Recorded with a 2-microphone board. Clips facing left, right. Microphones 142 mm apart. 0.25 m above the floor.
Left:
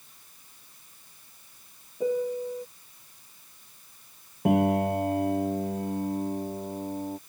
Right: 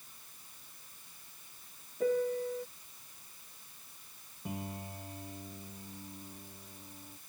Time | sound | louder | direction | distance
2.0 | a piano | left 3 dB | 15° left (ahead or behind) | ?
4.5 | a piano | left 20 dB | 75° left (ahead or behind) | ?